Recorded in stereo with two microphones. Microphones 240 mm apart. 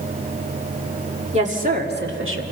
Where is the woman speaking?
25° right (ahead or behind), 2.5 m; by 2.4 s 65° right (ahead or behind), 1.9 m.